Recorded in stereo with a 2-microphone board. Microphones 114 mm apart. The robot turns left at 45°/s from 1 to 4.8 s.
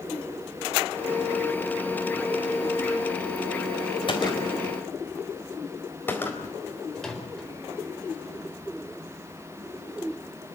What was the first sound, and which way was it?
A gunshot, 50° left (ahead or behind).